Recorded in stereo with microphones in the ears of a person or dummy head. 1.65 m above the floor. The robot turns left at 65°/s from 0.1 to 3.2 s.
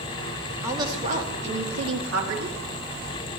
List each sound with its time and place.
0.6 s a woman speaking: 15° right, 4.5 m; by 2.6 s 140° right, 4.5 m